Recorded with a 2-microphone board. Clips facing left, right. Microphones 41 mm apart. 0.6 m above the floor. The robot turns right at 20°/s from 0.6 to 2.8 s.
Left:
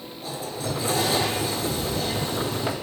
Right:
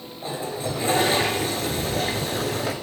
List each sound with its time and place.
0.2 s a toilet flushing: 145° right, 2.5 m; by 2.8 s 105° right, 2.5 m